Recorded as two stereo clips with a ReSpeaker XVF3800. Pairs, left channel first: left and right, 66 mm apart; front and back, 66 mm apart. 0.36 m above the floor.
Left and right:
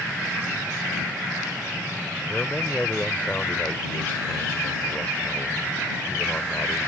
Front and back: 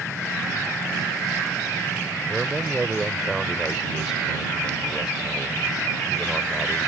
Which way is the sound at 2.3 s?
110° left.